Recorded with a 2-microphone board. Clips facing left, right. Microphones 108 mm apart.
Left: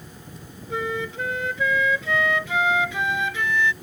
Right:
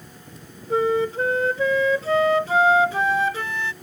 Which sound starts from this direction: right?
A flute, at 0.7 s.